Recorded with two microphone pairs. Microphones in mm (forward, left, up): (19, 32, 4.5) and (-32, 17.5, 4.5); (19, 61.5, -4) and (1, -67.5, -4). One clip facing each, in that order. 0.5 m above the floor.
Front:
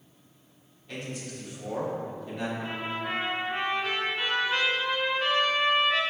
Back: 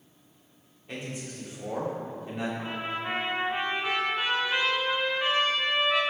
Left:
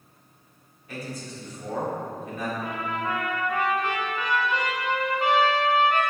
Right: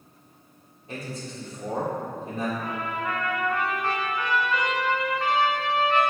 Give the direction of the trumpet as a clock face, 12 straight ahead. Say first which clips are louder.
Even, even; 7 o'clock.